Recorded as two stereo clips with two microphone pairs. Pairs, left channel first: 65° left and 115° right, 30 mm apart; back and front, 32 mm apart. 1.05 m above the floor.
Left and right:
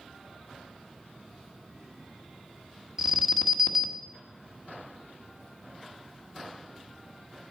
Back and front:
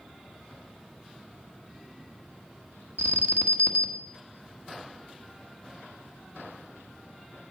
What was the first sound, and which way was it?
An alarm, 30° right.